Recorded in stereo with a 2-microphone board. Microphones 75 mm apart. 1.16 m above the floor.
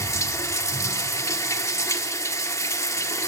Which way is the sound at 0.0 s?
40° left (ahead or behind).